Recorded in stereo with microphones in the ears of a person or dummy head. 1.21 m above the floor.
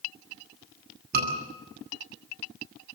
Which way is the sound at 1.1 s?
55° right (ahead or behind).